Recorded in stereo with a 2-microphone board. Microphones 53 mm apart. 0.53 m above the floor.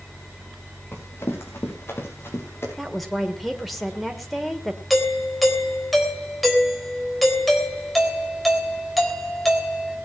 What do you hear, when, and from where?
0.9 s running footsteps: 50° left (ahead or behind), 5.5 m
2.8 s a woman speaking: centre (ahead or behind), 1.8 m
4.9 s a doorbell: centre (ahead or behind), 3.5 m